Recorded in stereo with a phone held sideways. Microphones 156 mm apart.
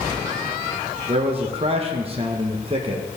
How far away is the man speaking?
About 1.1 m.